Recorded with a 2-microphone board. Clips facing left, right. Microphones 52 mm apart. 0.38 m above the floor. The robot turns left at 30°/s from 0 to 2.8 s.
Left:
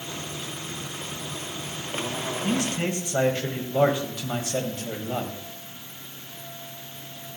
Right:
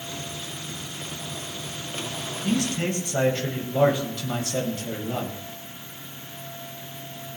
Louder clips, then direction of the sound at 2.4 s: Right 2 dB; 20° left (ahead or behind).